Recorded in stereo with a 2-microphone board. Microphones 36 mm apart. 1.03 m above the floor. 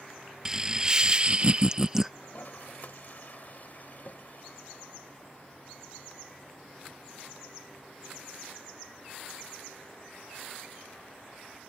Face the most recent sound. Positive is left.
turn(degrees=50)  # may be behind; listen again after turning